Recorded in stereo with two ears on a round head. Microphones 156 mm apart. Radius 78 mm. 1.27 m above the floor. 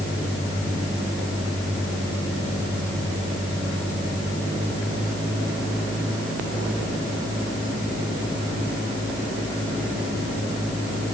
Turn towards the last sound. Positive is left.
No sound to turn to.